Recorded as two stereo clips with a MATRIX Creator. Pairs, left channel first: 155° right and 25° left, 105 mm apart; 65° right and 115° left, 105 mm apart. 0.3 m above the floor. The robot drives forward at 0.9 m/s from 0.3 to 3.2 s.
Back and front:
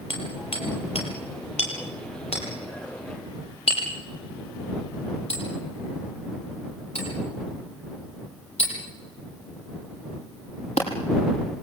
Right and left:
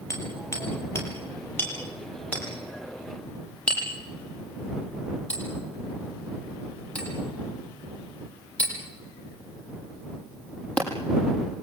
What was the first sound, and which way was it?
Hammering, 130° right.